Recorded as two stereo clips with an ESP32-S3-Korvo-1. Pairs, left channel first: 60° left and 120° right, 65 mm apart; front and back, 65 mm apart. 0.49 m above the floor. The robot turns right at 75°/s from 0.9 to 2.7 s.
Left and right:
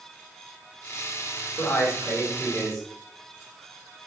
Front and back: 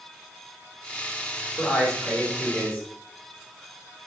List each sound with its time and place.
1.6 s a man speaking: 60° left, 1.3 m; by 2.9 s 145° left, 1.3 m